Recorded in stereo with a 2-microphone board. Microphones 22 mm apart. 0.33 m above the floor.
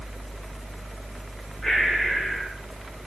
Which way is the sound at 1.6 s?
20° left (ahead or behind).